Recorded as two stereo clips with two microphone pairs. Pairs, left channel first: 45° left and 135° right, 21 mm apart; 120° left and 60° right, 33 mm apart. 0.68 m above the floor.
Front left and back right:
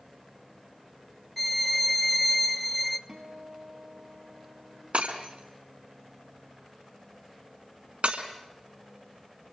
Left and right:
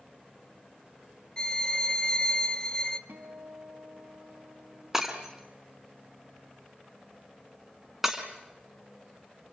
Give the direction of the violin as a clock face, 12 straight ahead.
8 o'clock.